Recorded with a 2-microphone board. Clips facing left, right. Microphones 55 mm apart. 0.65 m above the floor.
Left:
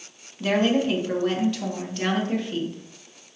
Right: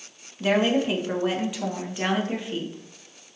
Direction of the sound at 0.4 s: 10° right (ahead or behind).